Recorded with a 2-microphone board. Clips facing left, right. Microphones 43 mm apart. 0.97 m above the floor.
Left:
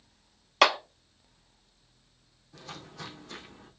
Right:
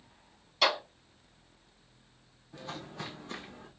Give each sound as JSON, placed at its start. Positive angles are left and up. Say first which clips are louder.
{"t": 0.6, "sound": "a clap", "louder": "left 5 dB", "side_deg": 75, "distance_m": 1.0}
{"t": 2.5, "sound": "footsteps", "louder": "right 3 dB", "side_deg": -20, "distance_m": 2.0}